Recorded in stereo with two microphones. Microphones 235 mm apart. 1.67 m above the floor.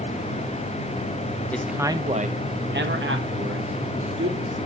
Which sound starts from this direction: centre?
A man speaking, at 1.5 s.